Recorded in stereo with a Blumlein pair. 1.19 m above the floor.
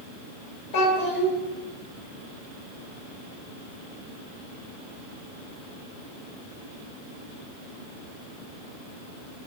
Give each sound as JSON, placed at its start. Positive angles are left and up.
{"t": 0.7, "sound": "a child speaking", "azimuth_deg": 50, "distance_m": 1.2}